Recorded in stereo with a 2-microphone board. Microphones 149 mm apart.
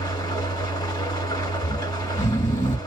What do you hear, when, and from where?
0.0 s an engine running: 25° left (ahead or behind), 1.7 m
1.6 s snoring: 55° left (ahead or behind), 0.9 m